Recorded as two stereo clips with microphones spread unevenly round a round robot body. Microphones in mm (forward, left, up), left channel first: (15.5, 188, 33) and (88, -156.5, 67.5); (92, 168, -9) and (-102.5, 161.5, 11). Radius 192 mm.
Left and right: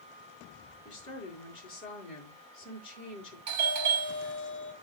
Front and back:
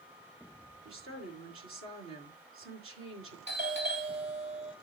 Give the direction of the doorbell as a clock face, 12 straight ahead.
4 o'clock.